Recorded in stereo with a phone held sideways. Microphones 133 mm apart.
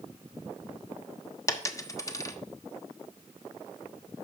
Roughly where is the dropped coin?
Left.